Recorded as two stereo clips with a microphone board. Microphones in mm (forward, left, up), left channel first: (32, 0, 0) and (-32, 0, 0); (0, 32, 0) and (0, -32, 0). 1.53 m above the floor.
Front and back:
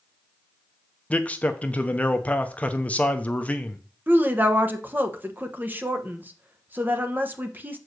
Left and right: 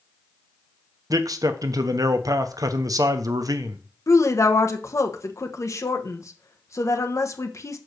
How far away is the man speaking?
About 0.9 m.